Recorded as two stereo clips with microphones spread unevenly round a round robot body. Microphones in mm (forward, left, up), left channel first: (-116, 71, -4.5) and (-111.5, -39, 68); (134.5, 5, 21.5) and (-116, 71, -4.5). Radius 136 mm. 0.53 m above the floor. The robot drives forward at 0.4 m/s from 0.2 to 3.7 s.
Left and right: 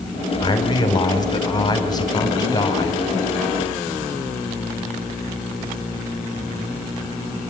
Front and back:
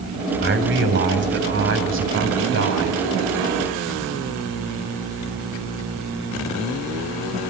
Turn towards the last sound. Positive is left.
turn(degrees=135)